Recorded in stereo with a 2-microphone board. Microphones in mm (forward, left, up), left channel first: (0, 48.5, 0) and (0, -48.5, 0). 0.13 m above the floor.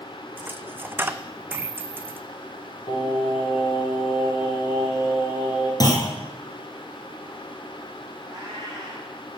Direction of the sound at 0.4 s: 20° right (ahead or behind).